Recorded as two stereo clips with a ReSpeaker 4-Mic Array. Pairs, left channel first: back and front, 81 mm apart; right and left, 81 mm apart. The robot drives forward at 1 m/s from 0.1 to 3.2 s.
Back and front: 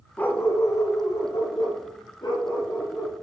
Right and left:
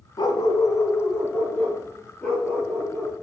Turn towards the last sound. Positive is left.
turn(degrees=-165)